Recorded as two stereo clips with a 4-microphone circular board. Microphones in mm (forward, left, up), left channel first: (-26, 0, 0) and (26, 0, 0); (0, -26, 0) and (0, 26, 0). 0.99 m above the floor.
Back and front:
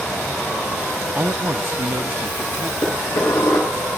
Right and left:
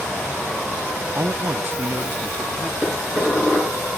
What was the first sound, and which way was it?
A man speaking, 55° left.